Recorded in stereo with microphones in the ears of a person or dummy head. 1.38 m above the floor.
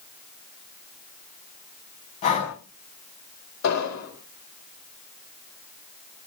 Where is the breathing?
40° left (ahead or behind), 5 m.